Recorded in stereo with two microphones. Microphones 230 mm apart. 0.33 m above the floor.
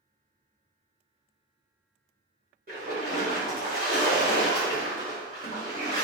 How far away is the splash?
About 1.3 m.